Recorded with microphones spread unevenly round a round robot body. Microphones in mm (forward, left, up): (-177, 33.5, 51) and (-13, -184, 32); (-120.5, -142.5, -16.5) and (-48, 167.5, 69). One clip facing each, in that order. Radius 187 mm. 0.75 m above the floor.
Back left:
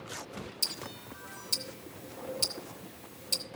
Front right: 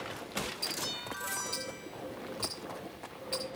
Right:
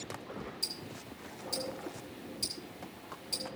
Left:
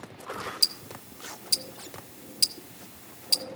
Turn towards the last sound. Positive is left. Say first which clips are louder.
# front right 3 dB, even
turn(degrees=95)